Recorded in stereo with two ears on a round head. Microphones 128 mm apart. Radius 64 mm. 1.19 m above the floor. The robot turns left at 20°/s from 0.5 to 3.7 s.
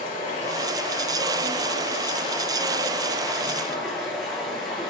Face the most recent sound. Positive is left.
turn(degrees=0)